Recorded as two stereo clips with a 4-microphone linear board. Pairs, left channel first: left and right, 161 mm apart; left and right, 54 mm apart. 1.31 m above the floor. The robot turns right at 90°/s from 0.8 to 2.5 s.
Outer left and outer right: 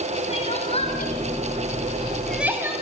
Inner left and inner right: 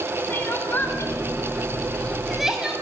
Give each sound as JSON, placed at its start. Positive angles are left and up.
{"t": 0.3, "sound": "crying", "side_deg": 40, "distance_m": 5.0}